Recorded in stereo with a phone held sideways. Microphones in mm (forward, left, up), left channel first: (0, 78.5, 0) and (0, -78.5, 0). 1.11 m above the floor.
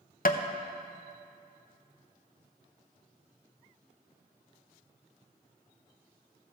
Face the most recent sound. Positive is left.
turn(degrees=65)  # may be behind; listen again after turning